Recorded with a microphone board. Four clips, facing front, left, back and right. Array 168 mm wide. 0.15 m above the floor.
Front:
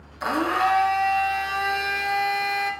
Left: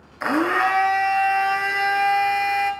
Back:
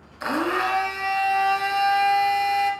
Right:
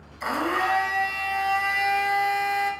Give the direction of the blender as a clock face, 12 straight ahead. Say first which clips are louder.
Left 5 dB, front 1 dB; 9 o'clock.